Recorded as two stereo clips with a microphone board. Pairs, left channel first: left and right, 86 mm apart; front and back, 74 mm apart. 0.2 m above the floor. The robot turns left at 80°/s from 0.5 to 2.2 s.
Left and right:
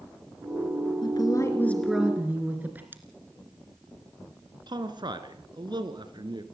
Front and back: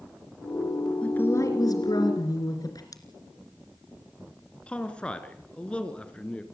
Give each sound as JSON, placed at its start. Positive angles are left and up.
{"t": 1.0, "sound": "a woman speaking", "azimuth_deg": 70, "distance_m": 3.0}
{"t": 2.9, "sound": "scissors", "azimuth_deg": -25, "distance_m": 2.5}
{"t": 4.7, "sound": "a man speaking", "azimuth_deg": -75, "distance_m": 2.5}